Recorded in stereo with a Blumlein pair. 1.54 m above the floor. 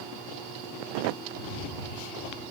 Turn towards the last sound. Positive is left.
turn(degrees=40)